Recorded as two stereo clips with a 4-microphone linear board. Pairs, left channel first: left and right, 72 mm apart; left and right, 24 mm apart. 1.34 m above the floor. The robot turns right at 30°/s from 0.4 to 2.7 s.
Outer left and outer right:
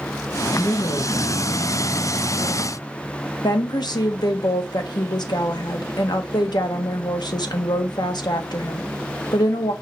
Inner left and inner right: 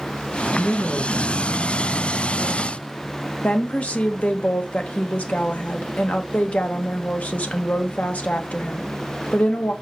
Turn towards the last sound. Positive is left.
turn(degrees=85)